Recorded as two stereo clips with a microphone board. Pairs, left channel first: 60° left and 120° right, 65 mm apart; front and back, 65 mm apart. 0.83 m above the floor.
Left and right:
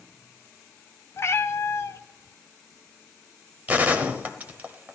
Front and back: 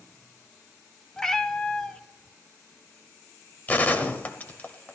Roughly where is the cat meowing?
Left.